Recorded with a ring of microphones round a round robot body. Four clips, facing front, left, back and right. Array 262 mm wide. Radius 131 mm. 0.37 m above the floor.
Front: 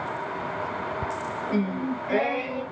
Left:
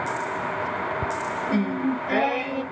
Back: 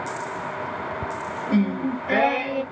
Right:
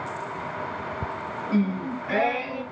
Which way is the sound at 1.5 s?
175° left.